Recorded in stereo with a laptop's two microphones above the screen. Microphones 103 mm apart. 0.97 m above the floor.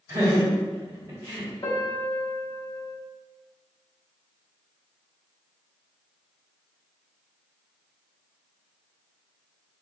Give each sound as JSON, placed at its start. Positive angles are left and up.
{"t": 0.1, "sound": "laughter", "side_deg": -30, "distance_m": 1.6}
{"t": 1.6, "sound": "a piano", "side_deg": 35, "distance_m": 1.3}